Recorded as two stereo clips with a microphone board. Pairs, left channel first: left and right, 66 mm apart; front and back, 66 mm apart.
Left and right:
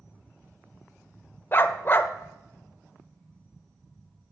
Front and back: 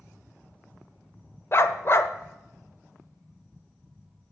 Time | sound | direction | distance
1.5 | a dog barking | 40° left | 0.7 m